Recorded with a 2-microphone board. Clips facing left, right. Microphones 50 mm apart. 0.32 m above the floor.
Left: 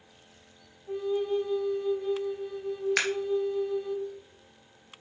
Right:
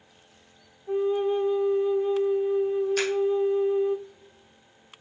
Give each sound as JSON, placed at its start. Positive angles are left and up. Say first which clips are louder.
{"t": 0.9, "sound": "a flute", "louder": "right 5 dB", "side_deg": -30, "distance_m": 0.7}
{"t": 3.0, "sound": "scissors", "louder": "right 2 dB", "side_deg": 80, "distance_m": 2.5}